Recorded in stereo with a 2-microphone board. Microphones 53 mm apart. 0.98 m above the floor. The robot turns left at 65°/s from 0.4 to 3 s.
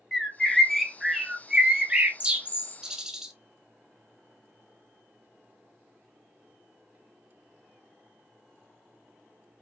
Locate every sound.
0.1 s a bird: 10° left (ahead or behind), 0.6 m; by 3.3 s 15° right (ahead or behind), 0.6 m